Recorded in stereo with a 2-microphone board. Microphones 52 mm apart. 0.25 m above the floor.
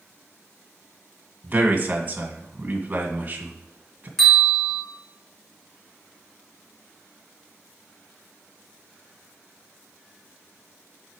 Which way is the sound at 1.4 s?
35° right (ahead or behind).